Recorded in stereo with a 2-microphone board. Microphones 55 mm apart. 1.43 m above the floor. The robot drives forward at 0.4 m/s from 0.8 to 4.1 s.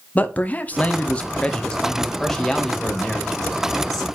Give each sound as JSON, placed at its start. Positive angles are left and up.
{"t": 0.1, "sound": "a man speaking", "side_deg": 30, "distance_m": 0.5}